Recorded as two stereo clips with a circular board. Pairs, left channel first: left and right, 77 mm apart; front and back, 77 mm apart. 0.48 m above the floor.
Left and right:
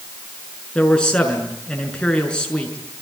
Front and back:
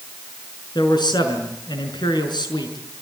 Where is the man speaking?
15° left, 6 m.